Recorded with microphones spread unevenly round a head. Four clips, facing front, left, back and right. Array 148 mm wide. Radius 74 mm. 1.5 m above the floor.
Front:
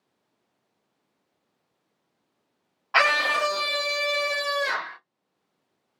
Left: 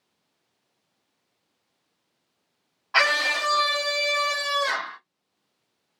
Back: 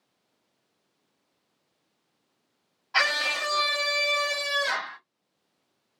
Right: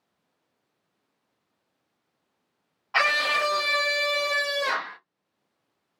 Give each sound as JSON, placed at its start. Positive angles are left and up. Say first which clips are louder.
{"t": 2.9, "sound": "a scream", "louder": "left 1 dB, front 6 dB", "azimuth_deg": 10, "distance_m": 1.1}